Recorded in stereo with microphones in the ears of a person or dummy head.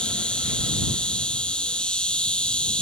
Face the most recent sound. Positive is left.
turn(degrees=0)  # may be behind; listen again after turning